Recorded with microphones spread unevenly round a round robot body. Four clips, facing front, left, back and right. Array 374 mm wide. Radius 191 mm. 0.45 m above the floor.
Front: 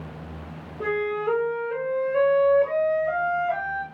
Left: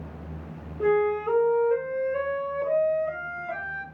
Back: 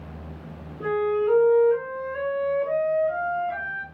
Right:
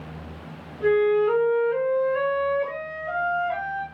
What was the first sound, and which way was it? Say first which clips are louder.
A flute: right 4 dB, back 3 dB; 75° left.